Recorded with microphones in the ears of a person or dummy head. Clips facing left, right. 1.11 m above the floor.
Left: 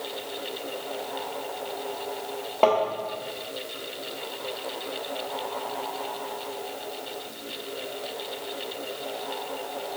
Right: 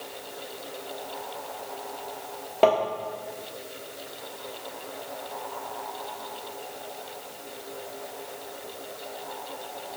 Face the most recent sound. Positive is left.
turn(degrees=-10)  # may be behind; listen again after turning